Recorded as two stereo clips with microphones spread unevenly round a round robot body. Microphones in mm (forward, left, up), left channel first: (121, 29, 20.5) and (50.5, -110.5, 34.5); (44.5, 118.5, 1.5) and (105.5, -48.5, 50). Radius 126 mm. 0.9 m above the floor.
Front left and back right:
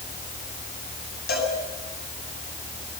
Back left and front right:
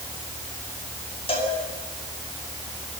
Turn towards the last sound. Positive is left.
turn(degrees=50)